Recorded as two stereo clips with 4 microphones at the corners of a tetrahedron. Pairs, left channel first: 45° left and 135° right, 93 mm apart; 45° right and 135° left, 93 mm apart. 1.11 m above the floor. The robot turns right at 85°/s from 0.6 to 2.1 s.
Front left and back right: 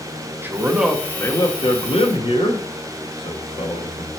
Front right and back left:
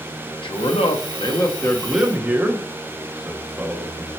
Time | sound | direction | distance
0.4 | a man speaking | 65° right | 1.2 m